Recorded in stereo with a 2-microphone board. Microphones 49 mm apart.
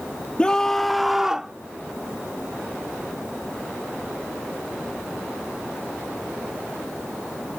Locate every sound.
0.4 s a scream: 20° left (ahead or behind); by 1.5 s 15° right (ahead or behind)